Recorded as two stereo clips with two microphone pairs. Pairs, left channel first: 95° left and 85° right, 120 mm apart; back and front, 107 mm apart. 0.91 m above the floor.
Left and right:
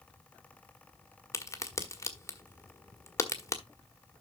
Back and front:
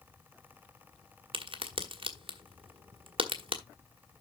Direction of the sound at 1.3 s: 30° left.